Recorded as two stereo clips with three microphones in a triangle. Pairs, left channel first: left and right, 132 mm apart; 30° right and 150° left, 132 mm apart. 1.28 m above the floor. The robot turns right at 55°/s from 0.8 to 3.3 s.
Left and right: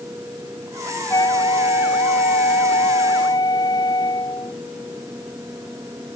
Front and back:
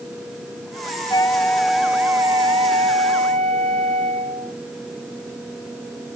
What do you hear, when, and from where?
1.1 s a flute: 25° left; by 4.5 s 145° left